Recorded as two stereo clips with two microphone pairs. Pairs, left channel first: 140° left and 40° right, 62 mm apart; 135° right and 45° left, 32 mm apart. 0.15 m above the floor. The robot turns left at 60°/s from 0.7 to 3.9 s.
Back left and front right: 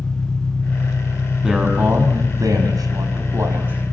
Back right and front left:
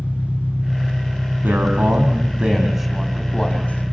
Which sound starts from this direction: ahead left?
A man speaking, at 1.4 s.